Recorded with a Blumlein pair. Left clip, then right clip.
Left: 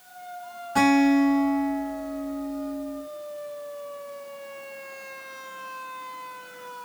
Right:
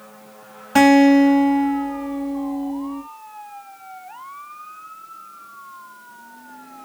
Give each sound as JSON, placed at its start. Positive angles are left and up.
{"t": 0.8, "sound": "a guitar", "azimuth_deg": -55, "distance_m": 4.5}